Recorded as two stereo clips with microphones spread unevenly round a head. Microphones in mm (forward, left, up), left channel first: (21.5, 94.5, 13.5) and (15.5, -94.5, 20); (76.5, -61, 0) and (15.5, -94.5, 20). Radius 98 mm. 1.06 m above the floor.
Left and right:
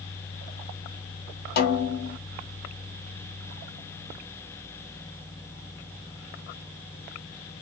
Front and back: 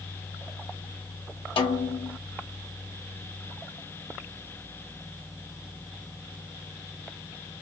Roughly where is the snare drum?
Ahead left.